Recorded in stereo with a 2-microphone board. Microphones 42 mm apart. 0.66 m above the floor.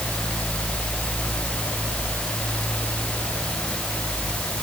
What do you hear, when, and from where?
Only background noise.